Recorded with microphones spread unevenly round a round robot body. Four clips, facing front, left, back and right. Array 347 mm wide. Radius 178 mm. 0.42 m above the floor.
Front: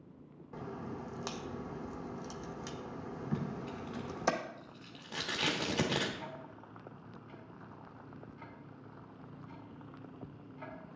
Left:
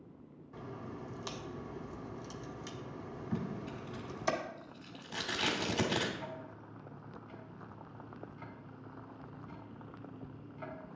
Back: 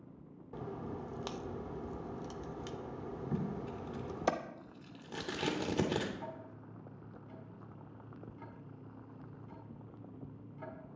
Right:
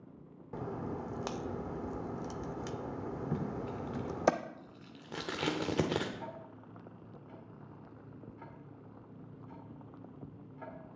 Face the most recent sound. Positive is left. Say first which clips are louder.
# left 1 dB, even
turn(degrees=-145)